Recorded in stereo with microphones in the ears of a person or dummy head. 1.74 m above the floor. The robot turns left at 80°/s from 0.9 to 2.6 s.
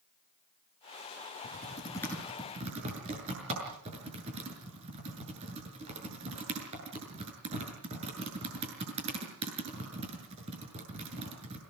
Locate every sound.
1.4 s typing on a keyboard: 60° left (ahead or behind), 7 m; by 11.6 s 30° right (ahead or behind), 7 m